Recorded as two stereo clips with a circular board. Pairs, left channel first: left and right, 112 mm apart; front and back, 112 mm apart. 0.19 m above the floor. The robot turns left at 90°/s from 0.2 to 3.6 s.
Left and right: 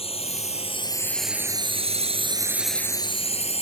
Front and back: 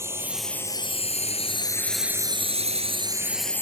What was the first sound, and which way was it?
A drone, 115° left.